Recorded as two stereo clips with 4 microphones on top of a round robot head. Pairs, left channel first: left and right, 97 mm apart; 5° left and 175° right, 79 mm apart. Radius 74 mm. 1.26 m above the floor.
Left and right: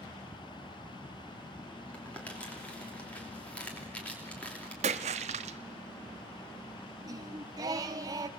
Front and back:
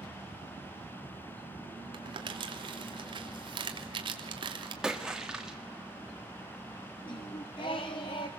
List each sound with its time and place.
1.9 s crumpling: 170° left, 3 m
4.8 s a splash: 90° right, 1.2 m
7.0 s singing: 40° right, 1.9 m